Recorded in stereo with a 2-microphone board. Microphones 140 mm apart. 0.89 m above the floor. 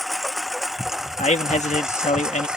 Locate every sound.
0.0 s a lawn mower: centre (ahead or behind); by 2.6 s 5° right (ahead or behind)
1.2 s a man speaking: 60° left (ahead or behind)